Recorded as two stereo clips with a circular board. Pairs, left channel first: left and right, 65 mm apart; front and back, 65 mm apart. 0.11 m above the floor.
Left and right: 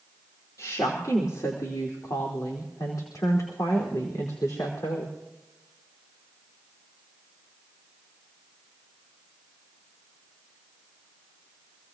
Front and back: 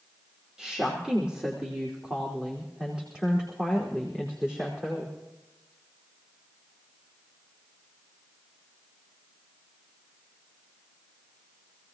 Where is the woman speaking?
100° left, 3 m; by 5.1 s 105° left, 5 m.